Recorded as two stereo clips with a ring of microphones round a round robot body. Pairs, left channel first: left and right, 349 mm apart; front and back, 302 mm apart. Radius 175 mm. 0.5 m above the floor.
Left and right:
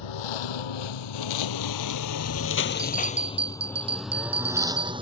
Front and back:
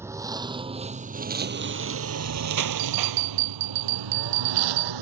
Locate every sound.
0.0 s a lawn mower: 100° left; by 5.0 s 165° right
2.8 s a bell: 165° right